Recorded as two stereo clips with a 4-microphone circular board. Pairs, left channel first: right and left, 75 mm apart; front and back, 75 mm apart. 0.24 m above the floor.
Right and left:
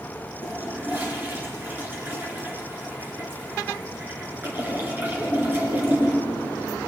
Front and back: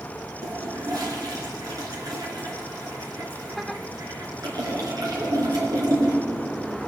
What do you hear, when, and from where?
0.4 s a toilet flushing: 155° left, 3 m